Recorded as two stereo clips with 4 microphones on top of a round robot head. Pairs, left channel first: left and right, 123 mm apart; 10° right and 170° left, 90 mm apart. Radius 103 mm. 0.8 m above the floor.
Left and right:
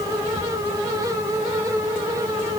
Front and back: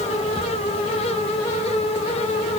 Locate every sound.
Only background noise.